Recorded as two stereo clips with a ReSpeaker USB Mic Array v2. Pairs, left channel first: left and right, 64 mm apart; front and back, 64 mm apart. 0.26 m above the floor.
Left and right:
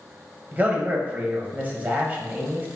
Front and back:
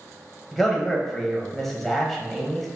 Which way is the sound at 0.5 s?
80° right.